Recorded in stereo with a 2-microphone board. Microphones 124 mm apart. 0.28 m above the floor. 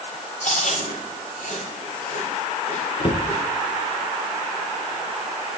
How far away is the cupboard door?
About 2 m.